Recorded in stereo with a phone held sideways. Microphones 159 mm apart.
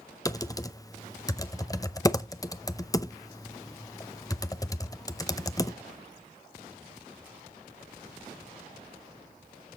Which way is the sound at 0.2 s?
20° left (ahead or behind).